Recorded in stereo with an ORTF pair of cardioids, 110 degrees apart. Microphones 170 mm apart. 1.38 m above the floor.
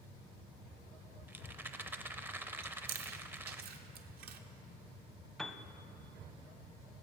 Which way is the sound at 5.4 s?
Straight ahead.